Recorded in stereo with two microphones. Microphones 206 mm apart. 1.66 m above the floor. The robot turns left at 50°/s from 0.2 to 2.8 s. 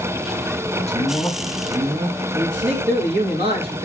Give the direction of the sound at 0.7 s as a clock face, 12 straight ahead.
11 o'clock.